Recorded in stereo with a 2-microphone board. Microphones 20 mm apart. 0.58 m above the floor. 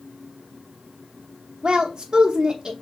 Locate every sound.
1.6 s a woman speaking: 40° right (ahead or behind), 0.8 m